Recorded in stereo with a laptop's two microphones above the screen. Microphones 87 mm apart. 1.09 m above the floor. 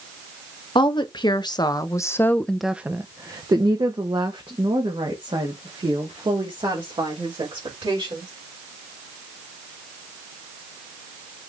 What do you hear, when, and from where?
0.8 s a woman speaking: 65° left (ahead or behind), 1.2 m; by 8.3 s 80° right, 3.5 m